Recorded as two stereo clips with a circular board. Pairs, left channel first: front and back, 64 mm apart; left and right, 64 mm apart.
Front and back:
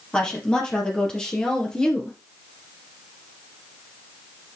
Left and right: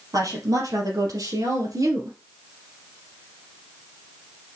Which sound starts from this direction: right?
A woman speaking, at 0.1 s.